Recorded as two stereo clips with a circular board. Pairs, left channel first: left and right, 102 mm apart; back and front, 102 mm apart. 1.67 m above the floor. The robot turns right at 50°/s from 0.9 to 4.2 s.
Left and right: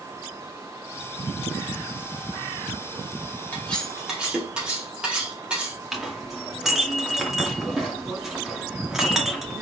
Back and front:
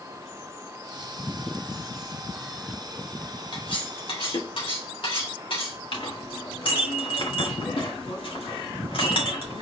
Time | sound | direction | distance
3.5 | cutlery clinking | 160° left | 1.9 m
5.9 | a clink | 175° right | 1.8 m